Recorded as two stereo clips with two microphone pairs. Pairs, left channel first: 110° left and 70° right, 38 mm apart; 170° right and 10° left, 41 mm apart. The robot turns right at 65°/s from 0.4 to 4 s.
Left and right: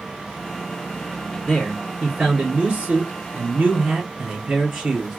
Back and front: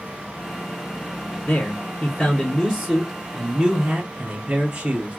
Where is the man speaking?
165° right, 1.1 m; by 5.2 s straight ahead, 1.1 m.